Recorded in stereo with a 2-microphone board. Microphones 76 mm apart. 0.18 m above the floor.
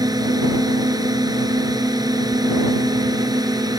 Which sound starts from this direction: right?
A drone, at 0.0 s.